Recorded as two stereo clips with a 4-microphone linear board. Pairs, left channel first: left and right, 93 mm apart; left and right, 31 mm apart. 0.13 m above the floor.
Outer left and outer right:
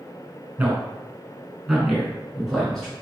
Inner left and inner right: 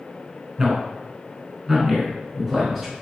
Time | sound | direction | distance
0.6 | a man speaking | 15° right (ahead or behind) | 1.3 m